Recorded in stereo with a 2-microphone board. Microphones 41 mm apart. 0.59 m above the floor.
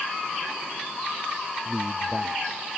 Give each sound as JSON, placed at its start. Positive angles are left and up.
{"t": 1.6, "sound": "a man speaking", "side_deg": -25}